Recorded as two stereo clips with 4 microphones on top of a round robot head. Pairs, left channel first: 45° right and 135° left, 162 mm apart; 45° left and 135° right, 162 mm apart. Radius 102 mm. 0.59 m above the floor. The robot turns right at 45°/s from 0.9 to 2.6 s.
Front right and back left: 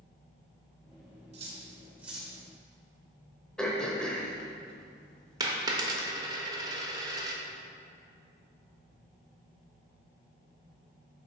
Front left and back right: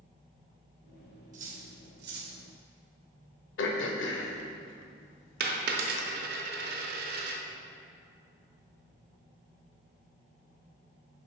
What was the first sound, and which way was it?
Cutlery clinking, 175° right.